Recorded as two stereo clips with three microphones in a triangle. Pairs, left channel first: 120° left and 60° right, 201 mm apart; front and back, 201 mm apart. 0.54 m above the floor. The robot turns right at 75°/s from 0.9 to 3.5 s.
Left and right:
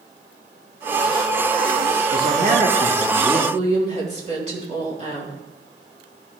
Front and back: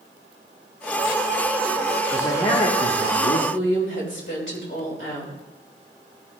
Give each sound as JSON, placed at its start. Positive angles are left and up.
{"t": 2.1, "sound": "a man speaking", "azimuth_deg": -80, "distance_m": 1.2}
{"t": 3.5, "sound": "a woman speaking", "azimuth_deg": -5, "distance_m": 2.5}